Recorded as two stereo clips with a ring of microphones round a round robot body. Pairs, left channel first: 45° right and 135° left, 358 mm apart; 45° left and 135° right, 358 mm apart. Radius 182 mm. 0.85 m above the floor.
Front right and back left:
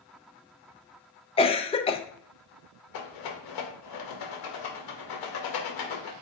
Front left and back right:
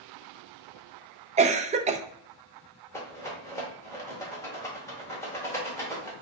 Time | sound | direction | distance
1.4 | a cough | 95° right | 0.5 m
2.9 | a rattle | 35° right | 1.6 m